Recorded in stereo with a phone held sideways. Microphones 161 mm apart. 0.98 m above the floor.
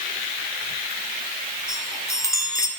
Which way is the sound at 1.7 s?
20° left (ahead or behind).